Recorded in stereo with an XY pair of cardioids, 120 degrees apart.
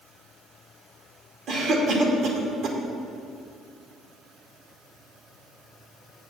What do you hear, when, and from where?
1.5 s a cough: 60° right, 2 m